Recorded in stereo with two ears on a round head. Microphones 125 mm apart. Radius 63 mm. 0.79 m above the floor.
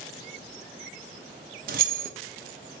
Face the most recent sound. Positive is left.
turn(degrees=-70)  # may be behind; listen again after turning